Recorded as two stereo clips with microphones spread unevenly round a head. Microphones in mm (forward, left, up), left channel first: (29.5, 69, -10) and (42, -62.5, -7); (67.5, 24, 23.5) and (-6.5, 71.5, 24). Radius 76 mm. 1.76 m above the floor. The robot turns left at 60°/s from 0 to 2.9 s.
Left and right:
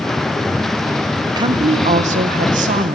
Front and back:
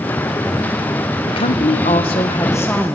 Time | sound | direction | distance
1.3 | a woman speaking | 25° right | 1.2 m